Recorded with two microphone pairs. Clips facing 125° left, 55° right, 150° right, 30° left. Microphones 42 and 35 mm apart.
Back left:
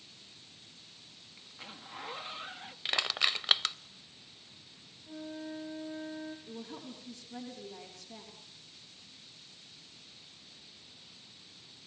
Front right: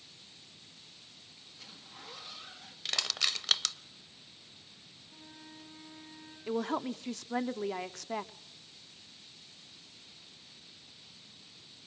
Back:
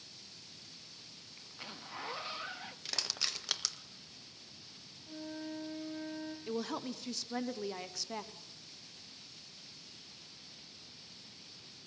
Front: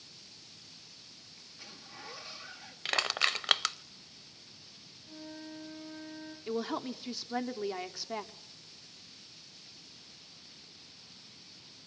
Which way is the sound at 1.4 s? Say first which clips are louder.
Back left 6 dB, back 4 dB; 165° left.